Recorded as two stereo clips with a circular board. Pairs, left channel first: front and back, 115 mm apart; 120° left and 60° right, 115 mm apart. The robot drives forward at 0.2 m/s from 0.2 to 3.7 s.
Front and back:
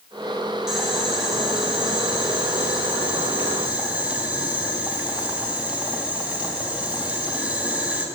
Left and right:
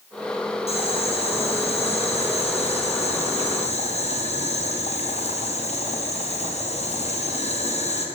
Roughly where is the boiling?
Left.